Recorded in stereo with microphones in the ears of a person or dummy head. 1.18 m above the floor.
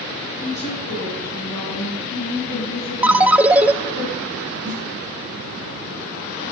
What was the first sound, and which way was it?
A woman speaking, 35° left (ahead or behind).